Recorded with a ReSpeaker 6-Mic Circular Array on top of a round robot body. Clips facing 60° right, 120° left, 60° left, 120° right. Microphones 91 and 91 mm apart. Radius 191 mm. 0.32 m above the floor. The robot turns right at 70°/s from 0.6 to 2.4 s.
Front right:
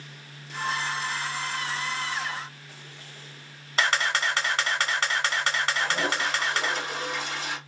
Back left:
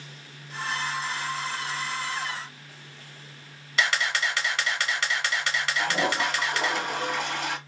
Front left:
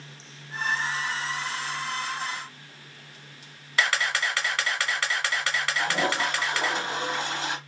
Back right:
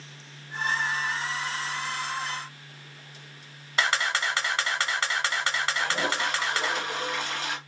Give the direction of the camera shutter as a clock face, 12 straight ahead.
2 o'clock.